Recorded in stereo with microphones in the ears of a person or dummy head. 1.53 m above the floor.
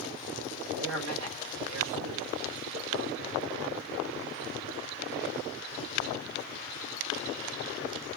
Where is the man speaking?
65° right (ahead or behind), 2.0 m.